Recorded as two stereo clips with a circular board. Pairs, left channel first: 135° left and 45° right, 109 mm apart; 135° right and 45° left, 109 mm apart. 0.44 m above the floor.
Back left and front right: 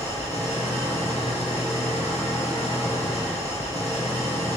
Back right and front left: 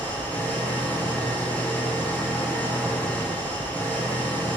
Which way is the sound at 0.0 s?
150° left.